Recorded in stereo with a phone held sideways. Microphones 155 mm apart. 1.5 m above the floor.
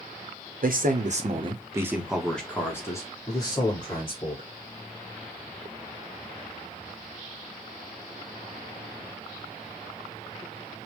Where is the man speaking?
70° right (ahead or behind), 1.0 m; by 4.5 s 35° left (ahead or behind), 2.5 m.